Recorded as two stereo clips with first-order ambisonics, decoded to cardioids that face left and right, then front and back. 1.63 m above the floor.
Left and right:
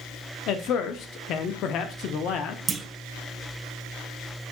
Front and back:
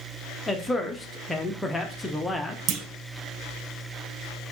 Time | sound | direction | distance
0.5 | a man speaking | 80° left | 0.6 m
2.7 | a clunk | 160° right | 0.5 m